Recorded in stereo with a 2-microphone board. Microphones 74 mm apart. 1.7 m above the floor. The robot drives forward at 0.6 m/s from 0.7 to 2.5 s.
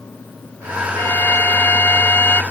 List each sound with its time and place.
1.0 s a violin: 30° left (ahead or behind)